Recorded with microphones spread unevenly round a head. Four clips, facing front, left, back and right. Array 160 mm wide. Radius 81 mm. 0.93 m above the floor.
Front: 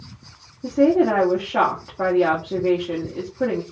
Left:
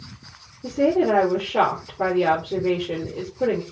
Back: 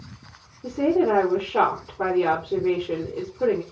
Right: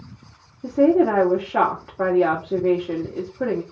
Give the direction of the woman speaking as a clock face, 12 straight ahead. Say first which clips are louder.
Right 3 dB, front 4 dB; 1 o'clock.